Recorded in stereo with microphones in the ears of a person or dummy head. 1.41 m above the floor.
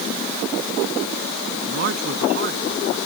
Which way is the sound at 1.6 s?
60° right (ahead or behind).